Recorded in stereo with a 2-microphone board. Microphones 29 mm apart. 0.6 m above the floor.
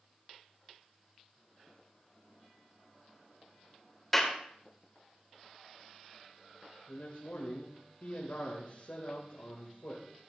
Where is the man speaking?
70° left (ahead or behind), 2.5 m.